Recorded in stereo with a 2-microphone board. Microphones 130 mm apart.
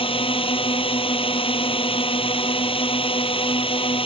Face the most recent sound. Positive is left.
turn(degrees=45)  # may be behind; listen again after turning